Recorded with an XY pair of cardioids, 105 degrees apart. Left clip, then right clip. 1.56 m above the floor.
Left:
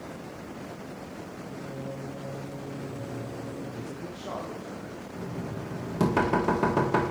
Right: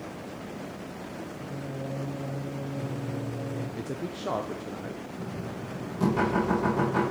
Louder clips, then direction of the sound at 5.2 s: Even; 65° left.